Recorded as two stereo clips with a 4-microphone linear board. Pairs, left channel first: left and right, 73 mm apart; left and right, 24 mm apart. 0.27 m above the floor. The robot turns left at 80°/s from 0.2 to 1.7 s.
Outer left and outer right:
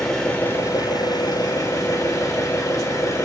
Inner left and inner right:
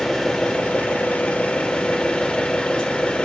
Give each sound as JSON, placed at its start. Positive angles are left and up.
{"t": 0.0, "sound": "an engine running", "azimuth_deg": 170, "distance_m": 4.5}